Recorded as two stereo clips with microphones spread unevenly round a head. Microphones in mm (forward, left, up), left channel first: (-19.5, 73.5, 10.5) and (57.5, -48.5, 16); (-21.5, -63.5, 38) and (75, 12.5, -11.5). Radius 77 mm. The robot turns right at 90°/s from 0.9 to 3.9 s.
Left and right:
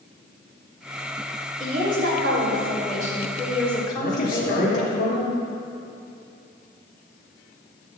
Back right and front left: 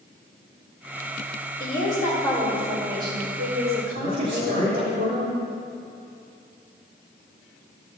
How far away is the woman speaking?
About 4 m.